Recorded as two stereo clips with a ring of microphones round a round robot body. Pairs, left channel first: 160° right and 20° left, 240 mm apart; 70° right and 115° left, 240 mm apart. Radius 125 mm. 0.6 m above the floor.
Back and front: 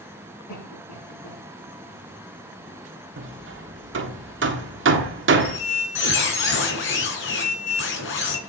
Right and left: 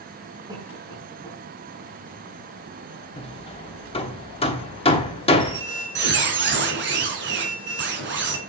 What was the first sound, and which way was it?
A cough, 170° right.